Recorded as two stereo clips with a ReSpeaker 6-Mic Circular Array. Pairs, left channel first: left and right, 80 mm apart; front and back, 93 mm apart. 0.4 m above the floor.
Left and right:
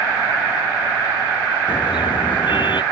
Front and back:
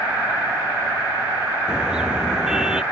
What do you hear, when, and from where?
1.7 s a car horn: 100° left